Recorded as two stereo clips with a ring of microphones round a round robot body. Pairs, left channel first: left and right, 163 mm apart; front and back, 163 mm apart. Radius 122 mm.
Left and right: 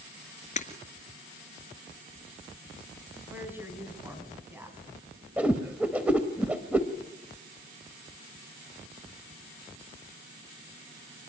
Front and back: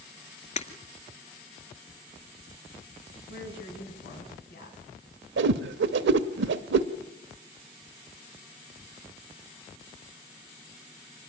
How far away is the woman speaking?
About 4 m.